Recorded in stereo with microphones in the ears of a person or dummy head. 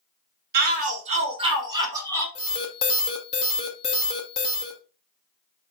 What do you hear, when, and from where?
0.5 s a shout: 50° right (ahead or behind), 1.0 m; by 2.2 s 10° right (ahead or behind), 1.4 m
2.4 s an alarm: 30° left (ahead or behind), 0.9 m